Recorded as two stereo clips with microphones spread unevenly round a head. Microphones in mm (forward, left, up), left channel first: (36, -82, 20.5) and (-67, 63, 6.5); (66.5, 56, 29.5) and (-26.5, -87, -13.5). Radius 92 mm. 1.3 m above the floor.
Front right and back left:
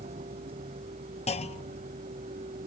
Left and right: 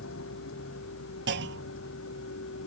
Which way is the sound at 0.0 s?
65° left.